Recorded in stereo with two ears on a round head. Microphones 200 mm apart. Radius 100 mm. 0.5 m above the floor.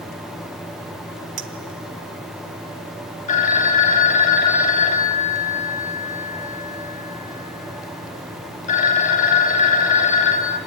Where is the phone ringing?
35° left (ahead or behind), 2 m.